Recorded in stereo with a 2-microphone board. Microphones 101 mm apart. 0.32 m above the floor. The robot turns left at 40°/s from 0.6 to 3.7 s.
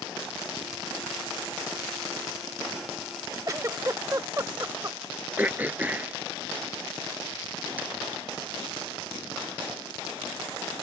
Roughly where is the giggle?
Right.